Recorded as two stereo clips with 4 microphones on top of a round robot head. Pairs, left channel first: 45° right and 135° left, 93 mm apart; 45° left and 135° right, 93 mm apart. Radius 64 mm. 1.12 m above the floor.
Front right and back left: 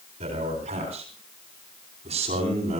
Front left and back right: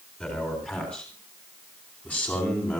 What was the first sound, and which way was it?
A man speaking, 125° left.